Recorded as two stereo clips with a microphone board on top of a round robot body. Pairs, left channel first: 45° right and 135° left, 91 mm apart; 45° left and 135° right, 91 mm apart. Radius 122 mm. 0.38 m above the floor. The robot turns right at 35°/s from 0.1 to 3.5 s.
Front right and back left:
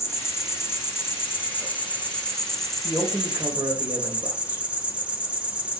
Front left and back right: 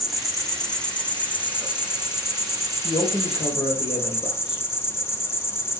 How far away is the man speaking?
About 2 m.